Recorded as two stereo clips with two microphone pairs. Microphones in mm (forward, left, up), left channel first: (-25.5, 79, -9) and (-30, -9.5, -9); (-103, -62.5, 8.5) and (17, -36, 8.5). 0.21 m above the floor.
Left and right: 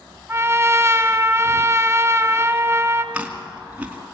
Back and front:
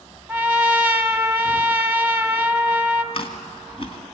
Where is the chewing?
165° right, 2.5 m.